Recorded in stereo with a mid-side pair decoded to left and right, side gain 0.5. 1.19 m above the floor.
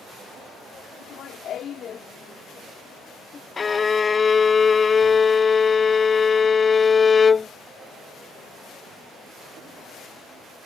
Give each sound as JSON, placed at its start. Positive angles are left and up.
{"t": 1.0, "sound": "laughter", "azimuth_deg": 65}
{"t": 3.6, "sound": "a violin", "azimuth_deg": 30}